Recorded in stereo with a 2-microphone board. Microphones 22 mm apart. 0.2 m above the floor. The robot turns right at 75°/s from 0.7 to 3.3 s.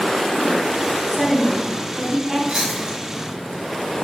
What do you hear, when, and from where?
1.1 s a woman speaking: 160° left, 1.2 m; by 2.4 s 100° right, 1.2 m
2.5 s chewing: 25° right (ahead or behind), 1.7 m; by 3.0 s 30° right (ahead or behind), 1.7 m